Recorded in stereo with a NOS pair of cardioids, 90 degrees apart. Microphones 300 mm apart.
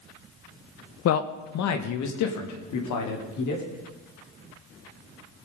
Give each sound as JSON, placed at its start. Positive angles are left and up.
{"t": 1.1, "sound": "a man speaking", "azimuth_deg": 55, "distance_m": 0.9}